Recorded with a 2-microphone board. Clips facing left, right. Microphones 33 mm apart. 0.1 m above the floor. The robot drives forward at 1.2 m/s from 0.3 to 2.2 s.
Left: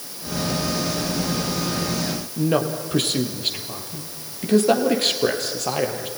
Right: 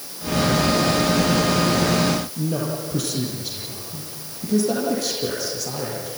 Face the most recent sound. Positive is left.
turn(degrees=55)  # may be behind; listen again after turning